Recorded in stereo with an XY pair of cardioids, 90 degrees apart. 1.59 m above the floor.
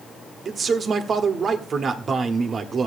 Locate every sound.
0.5 s a man speaking: 50° right, 1.1 m